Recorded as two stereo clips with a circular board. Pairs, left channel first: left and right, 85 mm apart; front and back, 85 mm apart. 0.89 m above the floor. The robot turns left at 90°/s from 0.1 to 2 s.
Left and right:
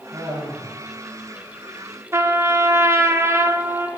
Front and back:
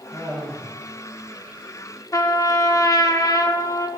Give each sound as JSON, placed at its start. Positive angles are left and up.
{"t": 0.1, "sound": "laughter", "azimuth_deg": -60, "distance_m": 3.0}
{"t": 2.1, "sound": "a trumpet", "azimuth_deg": -40, "distance_m": 0.6}